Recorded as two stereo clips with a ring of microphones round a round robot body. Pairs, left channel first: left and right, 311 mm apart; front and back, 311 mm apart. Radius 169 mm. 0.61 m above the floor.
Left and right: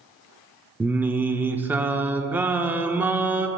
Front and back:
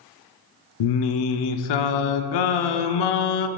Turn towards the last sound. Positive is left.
turn(degrees=-5)